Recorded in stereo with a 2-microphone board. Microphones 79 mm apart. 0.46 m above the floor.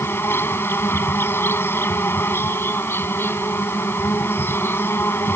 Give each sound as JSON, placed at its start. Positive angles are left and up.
{"t": 0.0, "sound": "an insect", "side_deg": 30}